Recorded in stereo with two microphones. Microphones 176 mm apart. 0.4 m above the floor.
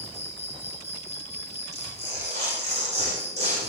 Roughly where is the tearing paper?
Right.